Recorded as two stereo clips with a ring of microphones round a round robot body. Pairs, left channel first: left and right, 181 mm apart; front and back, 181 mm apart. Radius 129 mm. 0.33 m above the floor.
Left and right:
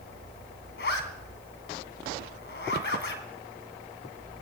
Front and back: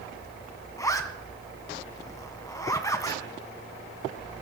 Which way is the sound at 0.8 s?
70° left.